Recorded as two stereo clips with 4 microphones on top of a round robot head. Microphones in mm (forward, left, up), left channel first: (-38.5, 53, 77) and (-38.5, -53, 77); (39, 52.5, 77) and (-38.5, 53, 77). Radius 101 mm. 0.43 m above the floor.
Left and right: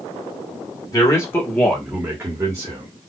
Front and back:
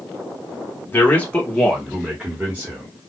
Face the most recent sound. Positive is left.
turn(degrees=-125)